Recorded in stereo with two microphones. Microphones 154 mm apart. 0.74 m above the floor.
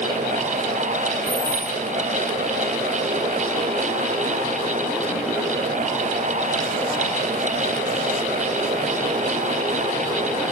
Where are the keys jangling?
20° right (ahead or behind), 1.2 m.